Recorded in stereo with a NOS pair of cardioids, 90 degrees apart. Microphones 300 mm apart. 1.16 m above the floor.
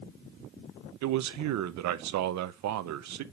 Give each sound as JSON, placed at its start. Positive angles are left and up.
{"t": 1.0, "sound": "a man speaking", "azimuth_deg": -70, "distance_m": 0.7}